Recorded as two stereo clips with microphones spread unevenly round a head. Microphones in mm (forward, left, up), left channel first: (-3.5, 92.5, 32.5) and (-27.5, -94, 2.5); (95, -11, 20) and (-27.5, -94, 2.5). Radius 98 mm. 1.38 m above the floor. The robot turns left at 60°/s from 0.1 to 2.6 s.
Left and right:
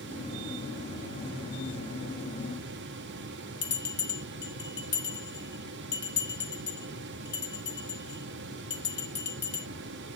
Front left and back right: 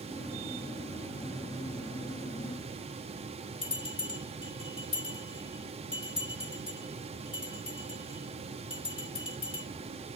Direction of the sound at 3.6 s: 95° left.